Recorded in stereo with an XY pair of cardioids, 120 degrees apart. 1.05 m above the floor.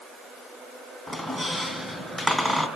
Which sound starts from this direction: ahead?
A squeak, at 1.1 s.